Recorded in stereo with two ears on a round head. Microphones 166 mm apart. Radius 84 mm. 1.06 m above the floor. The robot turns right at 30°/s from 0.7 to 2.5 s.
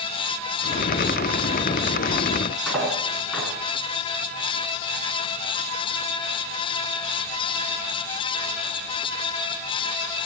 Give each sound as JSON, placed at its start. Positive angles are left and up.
{"t": 2.7, "sound": "cutlery clinking", "side_deg": 5, "distance_m": 8.0}